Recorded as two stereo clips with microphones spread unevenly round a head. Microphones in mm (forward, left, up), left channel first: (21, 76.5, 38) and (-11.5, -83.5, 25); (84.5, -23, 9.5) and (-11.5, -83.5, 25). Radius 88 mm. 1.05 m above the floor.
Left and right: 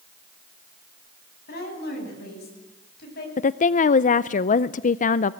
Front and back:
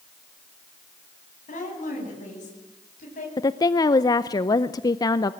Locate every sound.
1.5 s a woman speaking: 50° left, 10 m
3.4 s a woman speaking: 60° left, 0.5 m